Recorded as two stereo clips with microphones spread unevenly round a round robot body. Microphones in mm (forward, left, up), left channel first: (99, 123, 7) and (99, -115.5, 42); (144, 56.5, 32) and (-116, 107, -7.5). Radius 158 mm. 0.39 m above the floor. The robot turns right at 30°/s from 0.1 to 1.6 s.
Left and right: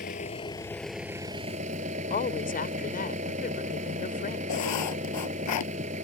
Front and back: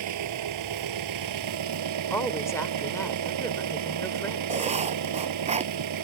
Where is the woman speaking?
75° left.